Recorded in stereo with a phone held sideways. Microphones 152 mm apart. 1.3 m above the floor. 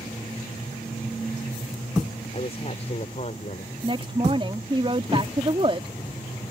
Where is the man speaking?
40° left (ahead or behind); by 3.7 s 50° left (ahead or behind).